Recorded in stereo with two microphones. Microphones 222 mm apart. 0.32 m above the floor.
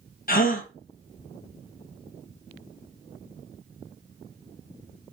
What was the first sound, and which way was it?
A gasp, 40° left (ahead or behind).